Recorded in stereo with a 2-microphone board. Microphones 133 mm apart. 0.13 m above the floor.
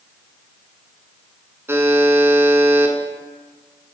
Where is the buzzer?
20° right (ahead or behind), 0.8 m.